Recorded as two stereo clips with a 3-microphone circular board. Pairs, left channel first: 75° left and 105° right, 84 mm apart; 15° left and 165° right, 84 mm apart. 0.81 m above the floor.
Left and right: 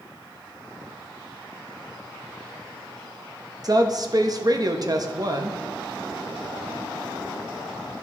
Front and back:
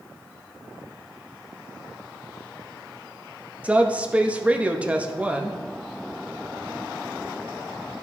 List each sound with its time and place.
3.6 s a woman speaking: 95° right, 0.7 m